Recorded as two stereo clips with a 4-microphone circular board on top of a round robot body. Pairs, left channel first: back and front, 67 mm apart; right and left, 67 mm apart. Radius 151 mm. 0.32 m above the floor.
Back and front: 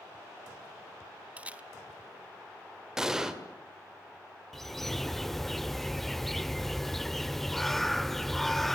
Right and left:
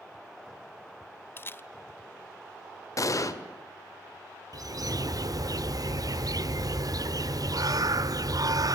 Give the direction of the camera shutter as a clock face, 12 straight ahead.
2 o'clock.